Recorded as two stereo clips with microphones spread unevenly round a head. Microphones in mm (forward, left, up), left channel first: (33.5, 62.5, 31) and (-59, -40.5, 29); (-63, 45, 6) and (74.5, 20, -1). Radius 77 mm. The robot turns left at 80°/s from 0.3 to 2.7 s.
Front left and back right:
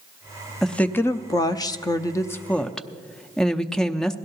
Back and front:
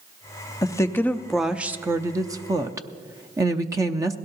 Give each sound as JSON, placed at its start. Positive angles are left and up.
{"t": 0.6, "sound": "a woman speaking", "azimuth_deg": 135, "distance_m": 0.6}